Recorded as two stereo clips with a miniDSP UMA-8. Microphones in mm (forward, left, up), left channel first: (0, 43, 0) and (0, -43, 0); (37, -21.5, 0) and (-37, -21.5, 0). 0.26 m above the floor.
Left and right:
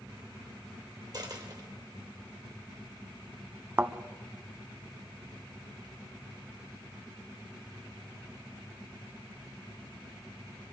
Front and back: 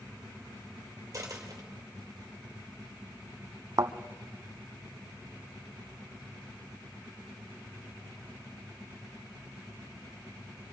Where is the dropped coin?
130° right, 2.5 m.